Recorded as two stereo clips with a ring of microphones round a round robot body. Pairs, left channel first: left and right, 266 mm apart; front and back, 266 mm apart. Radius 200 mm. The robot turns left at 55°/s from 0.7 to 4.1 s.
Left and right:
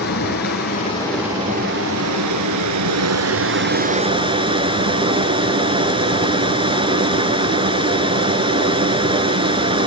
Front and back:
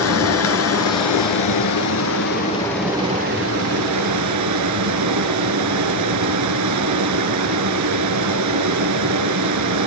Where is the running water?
25° left, 2 m; by 9.9 s 160° right, 2 m.